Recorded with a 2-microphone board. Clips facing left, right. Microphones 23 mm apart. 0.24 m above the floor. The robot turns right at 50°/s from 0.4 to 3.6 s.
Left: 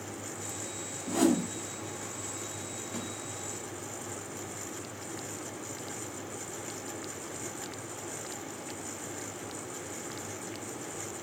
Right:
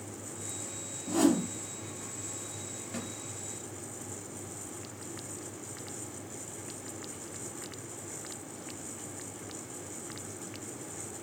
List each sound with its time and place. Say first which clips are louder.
1.1 s a whoosh: even; centre (ahead or behind), 1.2 m; by 1.5 s 15° right (ahead or behind), 1.2 m
2.9 s a snare drum: even; 10° right (ahead or behind), 2.5 m; by 3.1 s centre (ahead or behind), 2.5 m